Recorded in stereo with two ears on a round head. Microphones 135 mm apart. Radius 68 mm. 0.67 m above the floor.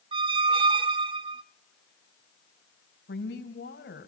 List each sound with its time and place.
0.1 s a squeak: 35° right (ahead or behind), 0.6 m
3.1 s a woman speaking: 80° left, 3.5 m